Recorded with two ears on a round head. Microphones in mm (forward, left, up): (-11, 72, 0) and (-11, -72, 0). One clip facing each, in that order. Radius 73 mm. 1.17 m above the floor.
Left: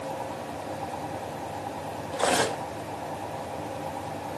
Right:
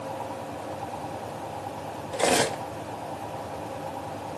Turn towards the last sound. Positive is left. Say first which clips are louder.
# right 2 dB
turn(degrees=-20)  # may be behind; listen again after turning